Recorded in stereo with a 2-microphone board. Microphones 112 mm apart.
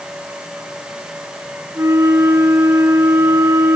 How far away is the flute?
About 2 m.